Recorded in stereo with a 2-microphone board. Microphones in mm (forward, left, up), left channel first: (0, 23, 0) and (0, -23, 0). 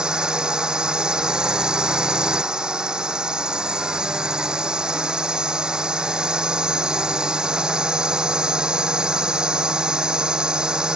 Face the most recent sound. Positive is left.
turn(degrees=-15)  # may be behind; listen again after turning